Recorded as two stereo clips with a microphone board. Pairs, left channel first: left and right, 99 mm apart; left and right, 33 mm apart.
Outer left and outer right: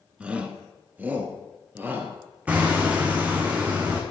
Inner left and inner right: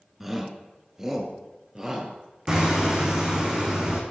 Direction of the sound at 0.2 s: 10° right (ahead or behind).